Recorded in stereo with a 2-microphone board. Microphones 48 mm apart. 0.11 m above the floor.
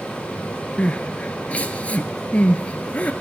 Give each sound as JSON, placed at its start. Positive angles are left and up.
{"t": 0.8, "sound": "crying", "side_deg": 30, "distance_m": 0.5}